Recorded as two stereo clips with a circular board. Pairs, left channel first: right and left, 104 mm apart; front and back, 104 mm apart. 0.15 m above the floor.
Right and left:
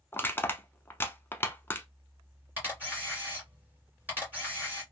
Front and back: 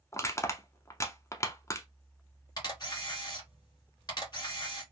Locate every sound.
0.1 s crushing: 35° right, 0.6 m
2.6 s a camera shutter: 25° left, 2.5 m